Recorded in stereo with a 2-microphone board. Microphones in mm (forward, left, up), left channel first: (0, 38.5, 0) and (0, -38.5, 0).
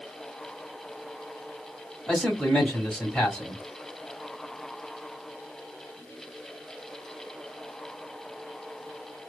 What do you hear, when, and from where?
2.1 s a man speaking: 10° left (ahead or behind), 1.4 m